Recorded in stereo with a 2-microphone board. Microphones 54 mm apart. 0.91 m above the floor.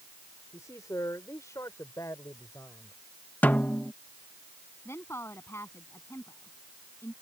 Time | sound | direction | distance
0.5 | a man speaking | 75° left (ahead or behind) | ?
3.4 | a snare drum | 35° left (ahead or behind) | ?
4.8 | a woman speaking | 50° left (ahead or behind) | ?